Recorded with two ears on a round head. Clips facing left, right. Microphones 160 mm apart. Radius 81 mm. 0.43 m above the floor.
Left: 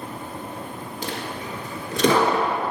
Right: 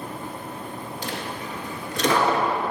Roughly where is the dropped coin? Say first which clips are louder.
Left 2 dB; left.